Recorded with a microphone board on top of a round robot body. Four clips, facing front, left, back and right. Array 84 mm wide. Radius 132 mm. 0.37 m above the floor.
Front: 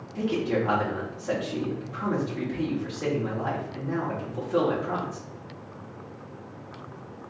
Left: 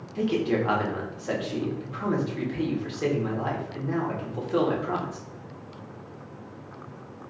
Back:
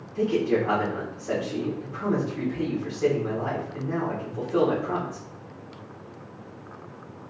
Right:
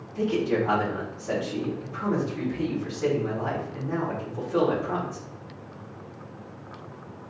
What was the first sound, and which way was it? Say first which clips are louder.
A man speaking: even, back 3 dB; 80° left.